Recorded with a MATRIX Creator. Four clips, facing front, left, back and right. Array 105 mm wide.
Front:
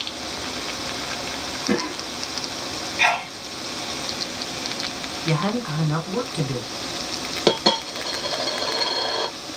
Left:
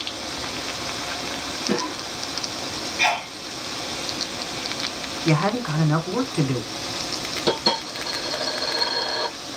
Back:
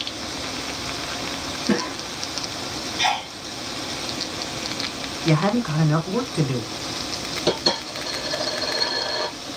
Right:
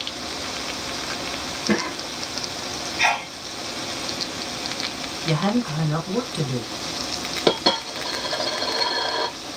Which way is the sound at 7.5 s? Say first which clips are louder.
Right 3 dB, front 4 dB; 30° right.